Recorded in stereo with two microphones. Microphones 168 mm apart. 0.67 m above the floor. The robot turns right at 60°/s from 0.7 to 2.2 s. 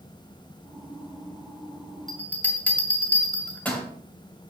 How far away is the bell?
About 1.7 m.